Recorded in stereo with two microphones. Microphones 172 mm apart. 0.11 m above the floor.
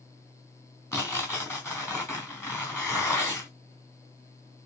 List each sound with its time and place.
0.9 s tearing paper: 15° left (ahead or behind), 3 m